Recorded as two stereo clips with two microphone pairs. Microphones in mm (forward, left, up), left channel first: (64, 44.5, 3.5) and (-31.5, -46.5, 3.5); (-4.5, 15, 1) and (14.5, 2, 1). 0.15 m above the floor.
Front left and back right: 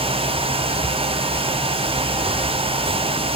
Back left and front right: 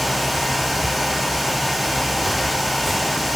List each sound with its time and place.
Only background noise.